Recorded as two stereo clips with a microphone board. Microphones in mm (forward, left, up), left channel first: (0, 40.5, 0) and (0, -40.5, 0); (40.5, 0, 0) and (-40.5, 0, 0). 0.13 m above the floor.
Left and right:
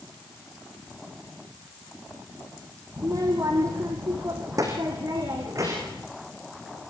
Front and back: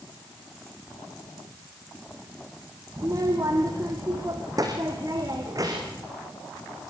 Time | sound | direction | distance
3.0 | a child speaking | 135° right | 2.5 m